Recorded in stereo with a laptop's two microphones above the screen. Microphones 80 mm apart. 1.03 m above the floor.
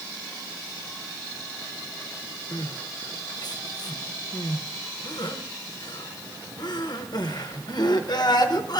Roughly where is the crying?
Left.